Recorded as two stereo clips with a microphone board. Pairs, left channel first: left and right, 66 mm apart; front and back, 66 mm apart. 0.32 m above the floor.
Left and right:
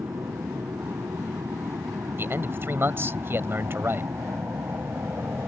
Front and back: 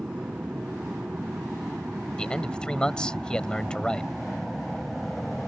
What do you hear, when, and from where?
0.0 s an aircraft: 110° right; by 5.5 s 85° right
2.2 s a man speaking: 70° right